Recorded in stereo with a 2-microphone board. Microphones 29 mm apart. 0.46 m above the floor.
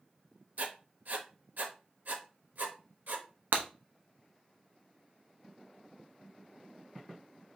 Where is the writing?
65° right (ahead or behind), 0.7 m.